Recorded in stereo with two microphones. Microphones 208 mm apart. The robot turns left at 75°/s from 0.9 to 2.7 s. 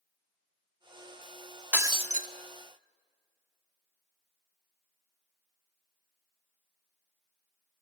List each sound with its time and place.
1.7 s breaking glass: 10° right, 0.8 m; by 2.3 s 50° right, 0.8 m